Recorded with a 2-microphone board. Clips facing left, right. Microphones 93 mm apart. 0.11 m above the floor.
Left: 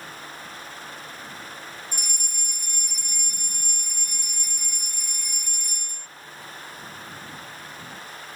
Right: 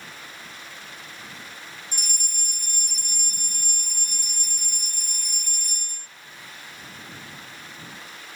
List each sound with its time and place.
1.9 s a fire alarm: 55° right (ahead or behind)